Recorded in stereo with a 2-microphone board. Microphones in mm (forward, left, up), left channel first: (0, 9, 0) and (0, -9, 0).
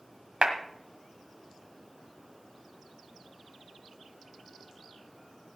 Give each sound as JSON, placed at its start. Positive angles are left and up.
{"t": 0.4, "sound": "a clap", "side_deg": -60, "distance_m": 1.5}